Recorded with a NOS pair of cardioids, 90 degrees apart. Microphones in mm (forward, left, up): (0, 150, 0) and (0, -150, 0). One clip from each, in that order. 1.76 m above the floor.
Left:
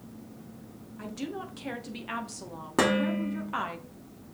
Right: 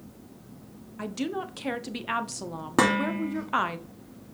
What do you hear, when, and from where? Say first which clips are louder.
1.0 s a woman speaking: right 5 dB; 30° right, 1.0 m
2.8 s dishes clattering: right 2 dB; 20° right, 2.5 m